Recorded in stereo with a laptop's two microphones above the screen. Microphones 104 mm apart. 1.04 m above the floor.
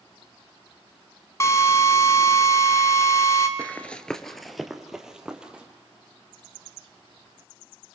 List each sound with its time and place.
1.4 s a drill: 30° left (ahead or behind), 1.8 m
3.6 s running footsteps: 15° left (ahead or behind), 1.0 m; by 5.6 s 10° right (ahead or behind), 2 m